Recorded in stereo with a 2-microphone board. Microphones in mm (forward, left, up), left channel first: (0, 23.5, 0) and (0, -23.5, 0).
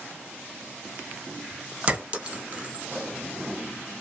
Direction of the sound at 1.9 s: 25° right (ahead or behind).